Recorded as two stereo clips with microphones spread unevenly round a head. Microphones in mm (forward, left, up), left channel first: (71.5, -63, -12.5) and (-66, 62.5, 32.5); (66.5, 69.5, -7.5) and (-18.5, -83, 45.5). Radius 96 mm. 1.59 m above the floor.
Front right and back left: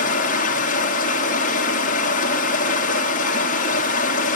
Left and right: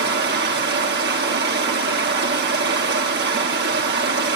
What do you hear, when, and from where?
0.0 s running water: 95° right, 3 m